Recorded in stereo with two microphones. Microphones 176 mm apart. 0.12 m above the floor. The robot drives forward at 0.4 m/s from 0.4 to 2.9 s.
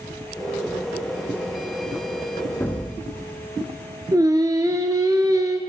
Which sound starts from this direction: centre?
An explosion, at 2.6 s.